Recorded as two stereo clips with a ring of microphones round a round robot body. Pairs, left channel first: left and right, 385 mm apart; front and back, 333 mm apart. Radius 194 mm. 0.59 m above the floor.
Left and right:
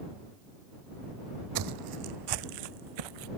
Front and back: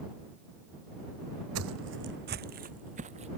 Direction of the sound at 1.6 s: 130° right.